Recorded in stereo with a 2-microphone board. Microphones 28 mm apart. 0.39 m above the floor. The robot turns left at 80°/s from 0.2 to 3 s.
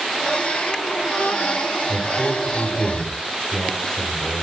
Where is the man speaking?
135° left, 0.8 m; by 4.4 s 45° left, 0.8 m.